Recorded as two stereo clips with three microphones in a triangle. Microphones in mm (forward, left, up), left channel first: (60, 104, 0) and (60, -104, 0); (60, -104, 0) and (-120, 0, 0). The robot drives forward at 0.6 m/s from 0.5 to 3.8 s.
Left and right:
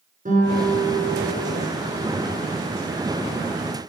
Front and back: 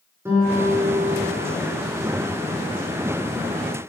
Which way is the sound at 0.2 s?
130° right.